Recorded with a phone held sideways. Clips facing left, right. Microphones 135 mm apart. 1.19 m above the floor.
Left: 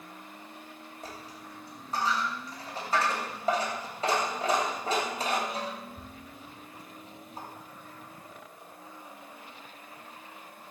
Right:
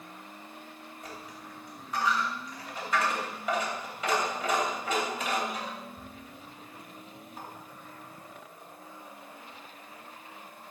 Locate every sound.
1.0 s a dropped coin: 35° left (ahead or behind), 3 m